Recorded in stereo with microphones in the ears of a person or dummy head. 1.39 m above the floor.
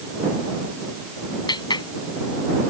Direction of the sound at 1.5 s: 25° left (ahead or behind).